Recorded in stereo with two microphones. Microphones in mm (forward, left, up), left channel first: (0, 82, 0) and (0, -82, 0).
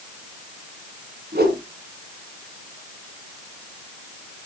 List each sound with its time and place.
1.3 s a whoosh: 75° right (ahead or behind), 3 m